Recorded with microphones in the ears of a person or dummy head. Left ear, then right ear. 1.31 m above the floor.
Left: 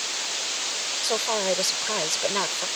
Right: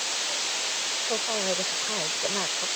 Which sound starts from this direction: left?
A woman speaking, at 1.0 s.